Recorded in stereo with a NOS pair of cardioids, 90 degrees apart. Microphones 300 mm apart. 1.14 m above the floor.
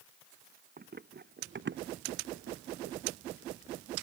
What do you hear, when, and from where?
0.8 s running footsteps: 35° right; by 3.0 s 60° right